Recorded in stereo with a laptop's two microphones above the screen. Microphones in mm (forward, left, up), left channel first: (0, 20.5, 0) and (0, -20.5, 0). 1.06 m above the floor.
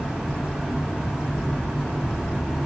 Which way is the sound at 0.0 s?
5° right (ahead or behind).